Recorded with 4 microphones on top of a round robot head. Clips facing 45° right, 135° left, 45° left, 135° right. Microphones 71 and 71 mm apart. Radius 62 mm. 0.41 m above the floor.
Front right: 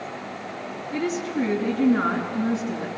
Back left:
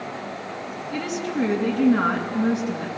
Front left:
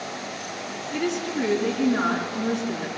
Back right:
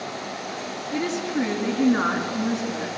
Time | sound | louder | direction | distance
0.9 | a woman speaking | front right 1 dB, back right 1 dB | 165° left | 5.5 m